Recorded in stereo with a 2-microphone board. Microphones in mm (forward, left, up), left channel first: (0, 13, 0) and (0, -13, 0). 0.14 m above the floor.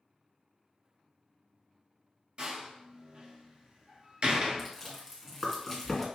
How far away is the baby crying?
No baby crying in this recording.